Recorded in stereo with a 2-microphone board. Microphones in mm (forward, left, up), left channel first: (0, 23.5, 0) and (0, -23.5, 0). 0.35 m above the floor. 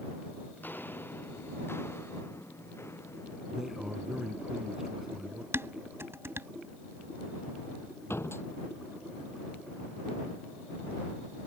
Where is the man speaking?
10° right (ahead or behind).